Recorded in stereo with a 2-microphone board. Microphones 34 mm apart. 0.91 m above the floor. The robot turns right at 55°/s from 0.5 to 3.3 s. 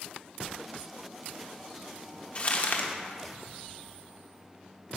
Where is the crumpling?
40° left, 1.1 m; by 2.9 s 70° left, 1.1 m.